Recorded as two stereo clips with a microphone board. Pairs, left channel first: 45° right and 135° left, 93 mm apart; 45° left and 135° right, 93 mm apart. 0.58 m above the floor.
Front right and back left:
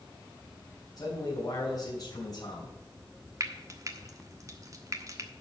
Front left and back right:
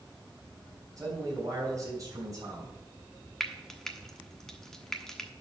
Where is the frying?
125° left, 1.2 m.